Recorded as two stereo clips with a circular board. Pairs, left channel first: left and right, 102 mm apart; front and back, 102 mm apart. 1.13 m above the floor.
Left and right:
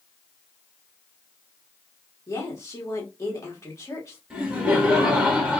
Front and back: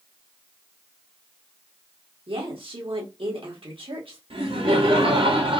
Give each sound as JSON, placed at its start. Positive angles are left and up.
{"t": 2.3, "sound": "a woman speaking", "azimuth_deg": 150, "distance_m": 1.7}
{"t": 4.3, "sound": "laughter", "azimuth_deg": -175, "distance_m": 2.5}